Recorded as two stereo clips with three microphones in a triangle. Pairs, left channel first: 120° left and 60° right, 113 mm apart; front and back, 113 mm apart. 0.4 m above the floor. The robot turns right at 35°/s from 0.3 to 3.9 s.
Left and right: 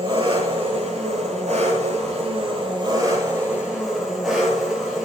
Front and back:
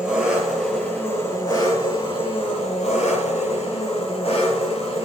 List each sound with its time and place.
0.0 s an engine running: 95° right, 8.5 m; by 5.1 s 30° left, 8.5 m